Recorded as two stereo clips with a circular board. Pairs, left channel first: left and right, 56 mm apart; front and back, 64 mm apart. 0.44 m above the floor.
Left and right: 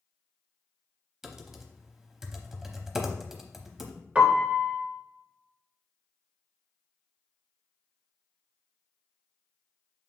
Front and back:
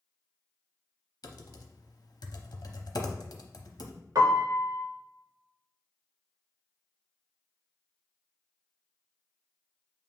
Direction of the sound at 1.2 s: 5° right.